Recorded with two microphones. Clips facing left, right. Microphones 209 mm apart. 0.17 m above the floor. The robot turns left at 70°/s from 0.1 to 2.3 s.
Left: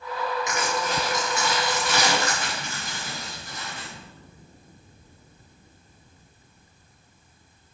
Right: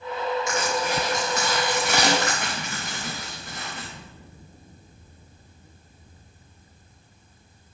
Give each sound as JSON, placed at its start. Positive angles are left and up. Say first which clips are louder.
{"t": 0.5, "sound": "crushing", "louder": "right 2 dB", "side_deg": 20, "distance_m": 3.5}